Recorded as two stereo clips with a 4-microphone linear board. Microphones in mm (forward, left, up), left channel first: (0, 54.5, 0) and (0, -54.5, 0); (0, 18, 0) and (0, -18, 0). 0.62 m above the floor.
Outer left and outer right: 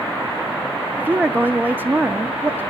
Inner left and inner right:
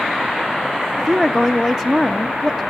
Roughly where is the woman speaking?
Centre.